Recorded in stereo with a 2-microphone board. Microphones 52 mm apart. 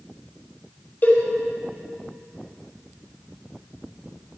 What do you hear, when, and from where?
1.0 s a cowbell: 40° left (ahead or behind), 5 m